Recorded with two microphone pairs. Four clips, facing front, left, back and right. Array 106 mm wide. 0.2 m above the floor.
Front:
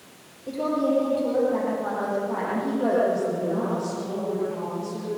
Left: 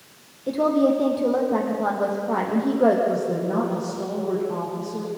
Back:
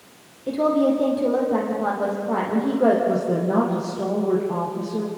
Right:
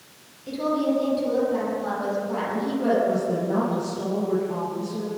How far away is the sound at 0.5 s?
About 7 m.